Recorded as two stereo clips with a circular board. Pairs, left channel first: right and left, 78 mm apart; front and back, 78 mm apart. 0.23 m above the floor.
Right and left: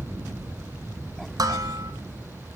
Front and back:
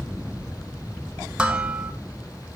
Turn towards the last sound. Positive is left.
turn(degrees=105)